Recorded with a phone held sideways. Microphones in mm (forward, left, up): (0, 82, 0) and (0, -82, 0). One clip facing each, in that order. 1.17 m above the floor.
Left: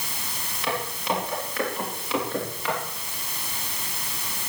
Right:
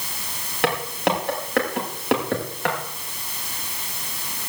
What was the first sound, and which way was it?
Footsteps, 70° right (ahead or behind).